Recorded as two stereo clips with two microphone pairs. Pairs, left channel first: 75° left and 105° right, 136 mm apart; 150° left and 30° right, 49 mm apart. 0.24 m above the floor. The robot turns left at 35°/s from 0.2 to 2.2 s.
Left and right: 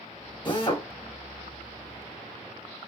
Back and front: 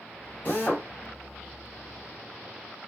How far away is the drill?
About 1.7 m.